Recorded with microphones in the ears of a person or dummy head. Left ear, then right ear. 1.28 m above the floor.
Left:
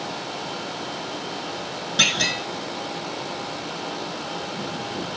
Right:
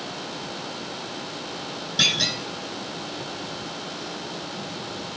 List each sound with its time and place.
2.0 s a clunk: 30° left (ahead or behind), 2 m